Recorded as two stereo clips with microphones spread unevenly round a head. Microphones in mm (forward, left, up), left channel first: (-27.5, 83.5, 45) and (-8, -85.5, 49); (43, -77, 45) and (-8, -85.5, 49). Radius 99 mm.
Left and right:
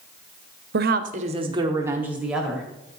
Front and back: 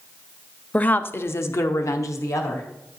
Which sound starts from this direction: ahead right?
A woman speaking, at 0.7 s.